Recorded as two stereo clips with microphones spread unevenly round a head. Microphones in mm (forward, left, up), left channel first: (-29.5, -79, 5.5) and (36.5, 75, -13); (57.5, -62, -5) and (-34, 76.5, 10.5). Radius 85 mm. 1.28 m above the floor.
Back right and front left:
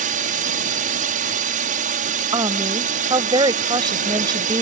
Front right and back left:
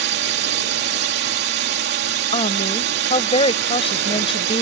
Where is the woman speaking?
Straight ahead.